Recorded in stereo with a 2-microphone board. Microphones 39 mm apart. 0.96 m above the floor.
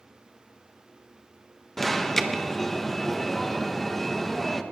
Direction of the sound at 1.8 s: 10° left (ahead or behind).